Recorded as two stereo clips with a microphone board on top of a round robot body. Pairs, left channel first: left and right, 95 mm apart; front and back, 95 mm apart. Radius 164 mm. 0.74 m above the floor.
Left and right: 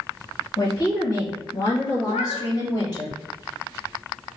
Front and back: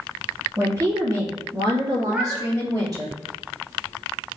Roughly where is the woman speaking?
Behind left.